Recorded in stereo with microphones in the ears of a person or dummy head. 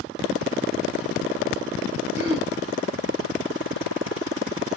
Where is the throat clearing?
75° right (ahead or behind), 2 m.